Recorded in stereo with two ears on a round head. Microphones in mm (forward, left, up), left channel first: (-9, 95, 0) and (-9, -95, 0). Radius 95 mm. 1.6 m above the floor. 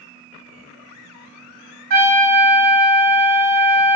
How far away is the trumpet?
About 2 m.